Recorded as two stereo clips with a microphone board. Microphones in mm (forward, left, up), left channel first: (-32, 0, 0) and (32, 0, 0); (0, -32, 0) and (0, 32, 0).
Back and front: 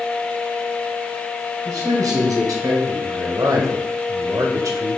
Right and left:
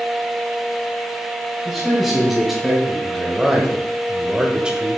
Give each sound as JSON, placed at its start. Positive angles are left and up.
{"t": 1.6, "sound": "a man speaking", "azimuth_deg": 0, "distance_m": 2.5}